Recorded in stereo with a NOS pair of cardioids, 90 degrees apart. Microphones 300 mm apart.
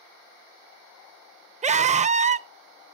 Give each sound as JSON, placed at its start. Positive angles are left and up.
{"t": 1.6, "sound": "a scream", "azimuth_deg": -25, "distance_m": 0.7}